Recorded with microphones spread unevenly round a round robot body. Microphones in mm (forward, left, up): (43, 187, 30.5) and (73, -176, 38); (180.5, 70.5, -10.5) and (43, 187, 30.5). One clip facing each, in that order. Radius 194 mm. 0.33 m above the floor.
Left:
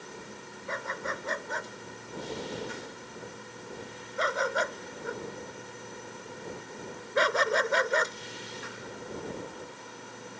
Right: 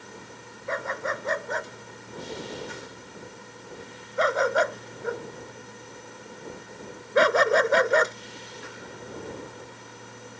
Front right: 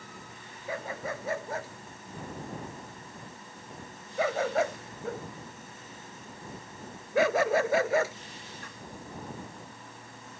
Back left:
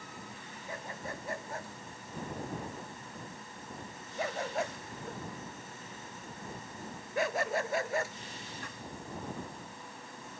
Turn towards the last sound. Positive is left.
turn(degrees=-55)